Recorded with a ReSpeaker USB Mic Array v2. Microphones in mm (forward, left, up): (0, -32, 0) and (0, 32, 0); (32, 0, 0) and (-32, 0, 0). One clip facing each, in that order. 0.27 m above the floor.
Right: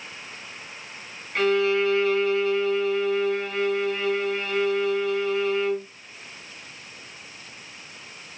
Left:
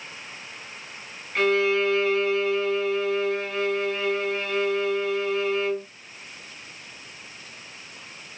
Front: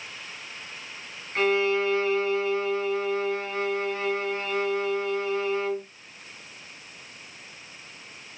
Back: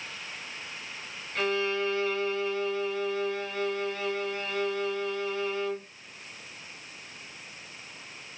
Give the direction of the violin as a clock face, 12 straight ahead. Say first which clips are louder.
Even, front 5 dB; 12 o'clock.